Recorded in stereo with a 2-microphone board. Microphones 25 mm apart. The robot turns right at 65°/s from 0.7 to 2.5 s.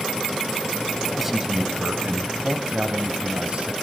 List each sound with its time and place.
1.1 s a man speaking: 175° right, 1.6 m; by 3.7 s 85° right, 1.6 m